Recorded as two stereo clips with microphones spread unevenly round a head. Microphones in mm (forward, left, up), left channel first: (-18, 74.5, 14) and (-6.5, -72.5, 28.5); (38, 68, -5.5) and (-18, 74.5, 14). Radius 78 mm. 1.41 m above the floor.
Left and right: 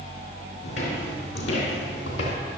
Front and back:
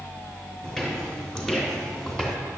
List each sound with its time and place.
0.6 s footsteps: 70° left, 5 m; by 2.4 s 75° left, 3.5 m